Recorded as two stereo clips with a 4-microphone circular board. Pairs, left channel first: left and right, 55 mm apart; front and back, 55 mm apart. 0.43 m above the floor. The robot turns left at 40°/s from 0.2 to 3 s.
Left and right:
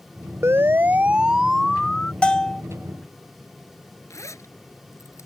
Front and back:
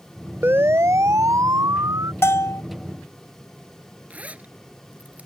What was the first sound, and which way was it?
A siren, 130° right.